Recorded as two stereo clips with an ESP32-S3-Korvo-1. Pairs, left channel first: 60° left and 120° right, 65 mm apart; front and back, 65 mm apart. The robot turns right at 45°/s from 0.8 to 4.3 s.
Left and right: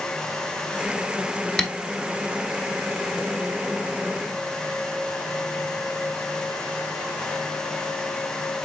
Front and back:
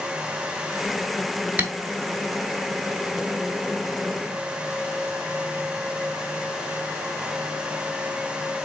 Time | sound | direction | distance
1.6 | tapping | 130° left | 0.9 m